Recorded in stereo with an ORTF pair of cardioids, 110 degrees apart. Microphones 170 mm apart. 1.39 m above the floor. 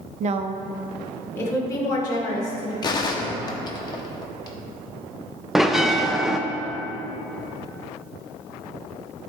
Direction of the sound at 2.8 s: 25° left.